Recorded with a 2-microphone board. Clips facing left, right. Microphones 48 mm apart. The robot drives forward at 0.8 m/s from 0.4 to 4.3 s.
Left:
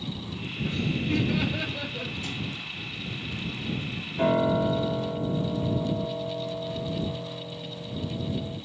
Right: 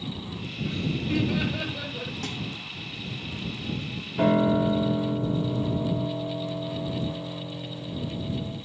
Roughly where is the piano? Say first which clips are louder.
Right 2 dB; right.